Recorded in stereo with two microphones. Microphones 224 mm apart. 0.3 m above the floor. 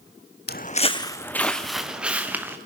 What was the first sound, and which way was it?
Footsteps, 50° left (ahead or behind).